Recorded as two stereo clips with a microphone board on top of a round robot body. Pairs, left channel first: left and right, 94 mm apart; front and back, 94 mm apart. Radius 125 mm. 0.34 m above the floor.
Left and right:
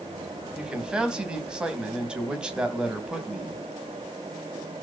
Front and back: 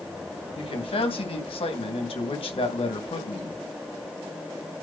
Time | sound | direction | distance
0.6 | a man speaking | 10° right | 3 m